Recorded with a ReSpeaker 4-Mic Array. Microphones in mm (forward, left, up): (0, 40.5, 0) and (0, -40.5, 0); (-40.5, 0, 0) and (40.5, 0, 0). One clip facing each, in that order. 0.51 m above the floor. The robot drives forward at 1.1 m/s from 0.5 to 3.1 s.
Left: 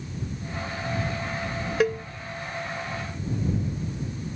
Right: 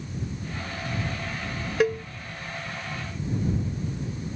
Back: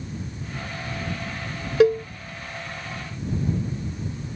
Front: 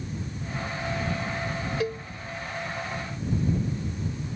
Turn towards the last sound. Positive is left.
turn(degrees=180)